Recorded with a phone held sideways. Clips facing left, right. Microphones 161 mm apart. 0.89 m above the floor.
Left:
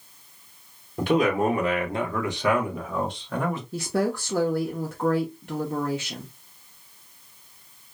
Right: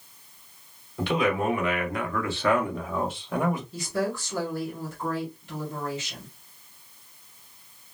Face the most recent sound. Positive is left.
turn(degrees=60)  # may be behind; listen again after turning